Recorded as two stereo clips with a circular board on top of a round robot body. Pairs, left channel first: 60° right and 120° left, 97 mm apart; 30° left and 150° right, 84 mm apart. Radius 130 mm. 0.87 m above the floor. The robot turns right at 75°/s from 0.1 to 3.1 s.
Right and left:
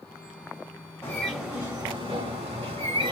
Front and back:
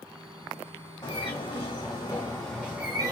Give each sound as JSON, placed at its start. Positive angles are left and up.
{"t": 1.0, "sound": "a bird", "azimuth_deg": -5, "distance_m": 0.7}